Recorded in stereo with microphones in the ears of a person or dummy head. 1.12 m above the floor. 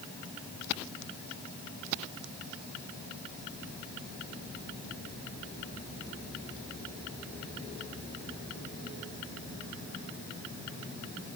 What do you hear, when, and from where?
Only background noise.